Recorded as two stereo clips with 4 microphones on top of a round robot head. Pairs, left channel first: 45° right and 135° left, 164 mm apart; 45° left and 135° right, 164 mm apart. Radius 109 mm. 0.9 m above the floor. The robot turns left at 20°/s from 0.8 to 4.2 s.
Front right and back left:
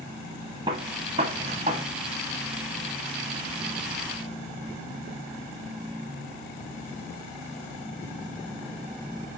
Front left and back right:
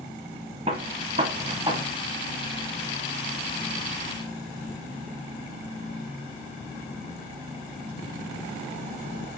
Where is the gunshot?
175° right, 0.8 m; by 1.9 s 165° left, 0.8 m.